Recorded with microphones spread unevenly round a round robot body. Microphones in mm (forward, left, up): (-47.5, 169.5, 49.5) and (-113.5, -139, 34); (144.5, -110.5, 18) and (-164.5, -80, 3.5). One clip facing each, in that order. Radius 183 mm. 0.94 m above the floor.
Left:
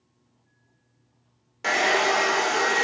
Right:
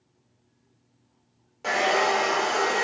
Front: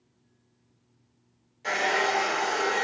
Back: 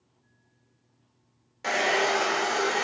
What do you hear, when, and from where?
1.6 s a hair dryer: 135° left, 0.5 m